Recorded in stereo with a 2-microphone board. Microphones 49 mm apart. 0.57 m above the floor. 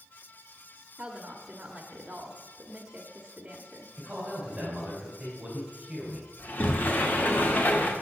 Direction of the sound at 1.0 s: 25° right (ahead or behind).